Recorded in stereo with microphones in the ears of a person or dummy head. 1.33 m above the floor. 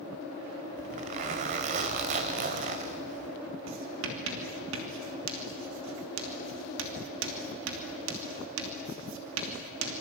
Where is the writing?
70° right (ahead or behind), 3 m.